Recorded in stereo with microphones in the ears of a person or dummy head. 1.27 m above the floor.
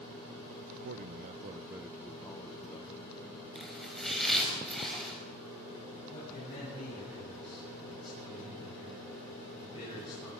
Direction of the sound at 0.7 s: 70° right (ahead or behind).